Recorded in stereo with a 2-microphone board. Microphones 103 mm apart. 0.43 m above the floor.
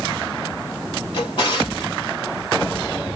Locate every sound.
1.1 s a drawer: 65° left (ahead or behind), 2.5 m